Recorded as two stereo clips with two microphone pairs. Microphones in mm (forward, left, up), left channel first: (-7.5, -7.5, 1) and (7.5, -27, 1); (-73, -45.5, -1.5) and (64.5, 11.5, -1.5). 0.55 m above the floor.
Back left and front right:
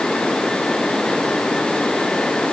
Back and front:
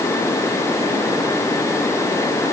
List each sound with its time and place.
Only background noise.